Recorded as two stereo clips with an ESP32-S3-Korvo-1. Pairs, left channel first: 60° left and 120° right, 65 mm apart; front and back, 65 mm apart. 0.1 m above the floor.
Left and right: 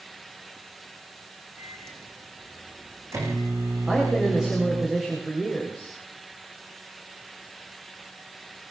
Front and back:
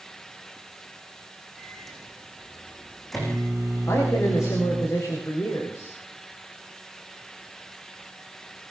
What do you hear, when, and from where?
1.6 s a microwave: 90° right, 6.5 m
3.9 s a man speaking: 40° right, 9 m